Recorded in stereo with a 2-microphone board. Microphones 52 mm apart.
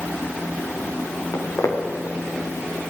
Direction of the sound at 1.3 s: 70° left (ahead or behind).